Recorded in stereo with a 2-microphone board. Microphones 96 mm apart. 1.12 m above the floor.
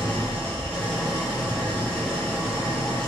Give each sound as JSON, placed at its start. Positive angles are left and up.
{"t": 0.0, "sound": "an engine running", "side_deg": 10, "distance_m": 0.9}